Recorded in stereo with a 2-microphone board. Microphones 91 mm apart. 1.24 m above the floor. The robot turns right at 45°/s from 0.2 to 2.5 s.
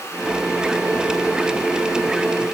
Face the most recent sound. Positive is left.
No sound to turn to.